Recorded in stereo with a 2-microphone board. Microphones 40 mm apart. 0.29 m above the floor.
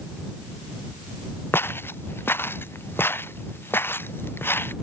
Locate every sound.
1.5 s footsteps: 70° left (ahead or behind); by 4.7 s 65° left (ahead or behind)